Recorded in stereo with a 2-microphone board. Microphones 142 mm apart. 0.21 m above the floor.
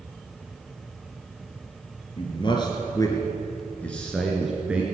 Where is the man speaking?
40° left (ahead or behind), 3 m; by 4.8 s 10° right (ahead or behind), 2.5 m.